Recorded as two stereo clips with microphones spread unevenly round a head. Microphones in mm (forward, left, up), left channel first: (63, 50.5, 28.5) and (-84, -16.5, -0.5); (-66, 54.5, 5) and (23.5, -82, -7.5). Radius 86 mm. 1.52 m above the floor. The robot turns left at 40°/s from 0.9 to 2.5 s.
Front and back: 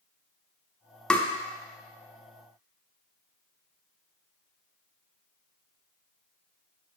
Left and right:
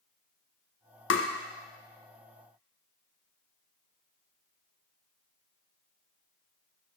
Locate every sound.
1.1 s tapping: 105° left, 0.7 m; by 1.3 s 100° left, 0.7 m